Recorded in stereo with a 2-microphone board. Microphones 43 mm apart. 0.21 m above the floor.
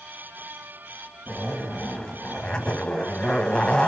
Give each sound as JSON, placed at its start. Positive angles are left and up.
{"t": 1.3, "sound": "a zipper", "side_deg": 20, "distance_m": 1.1}